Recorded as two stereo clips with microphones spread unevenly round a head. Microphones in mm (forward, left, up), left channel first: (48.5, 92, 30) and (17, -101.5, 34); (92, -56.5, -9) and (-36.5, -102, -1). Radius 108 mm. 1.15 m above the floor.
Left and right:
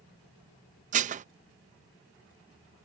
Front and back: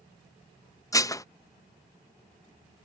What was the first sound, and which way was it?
Dishes clattering, 50° right.